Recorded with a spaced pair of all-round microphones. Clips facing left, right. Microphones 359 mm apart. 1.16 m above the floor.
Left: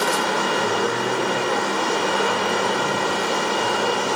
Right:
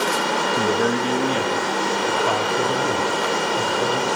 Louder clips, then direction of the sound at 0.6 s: Right 3 dB; 75° right (ahead or behind).